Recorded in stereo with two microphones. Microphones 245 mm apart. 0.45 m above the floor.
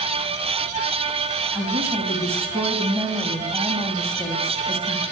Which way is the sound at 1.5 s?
10° right (ahead or behind).